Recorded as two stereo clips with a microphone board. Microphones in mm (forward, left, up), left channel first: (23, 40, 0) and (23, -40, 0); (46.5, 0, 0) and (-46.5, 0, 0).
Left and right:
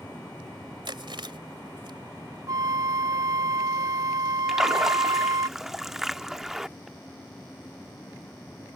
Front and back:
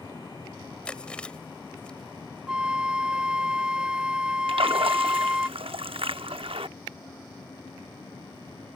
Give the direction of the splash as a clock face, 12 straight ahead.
6 o'clock.